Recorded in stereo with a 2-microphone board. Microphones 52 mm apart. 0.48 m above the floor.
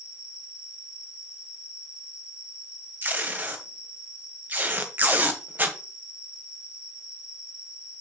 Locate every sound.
0.0 s an insect: 20° right (ahead or behind), 6 m
3.0 s tape being pulled: 35° right (ahead or behind), 1.5 m